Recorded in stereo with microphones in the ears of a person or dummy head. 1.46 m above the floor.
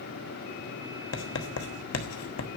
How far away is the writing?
About 1.2 m.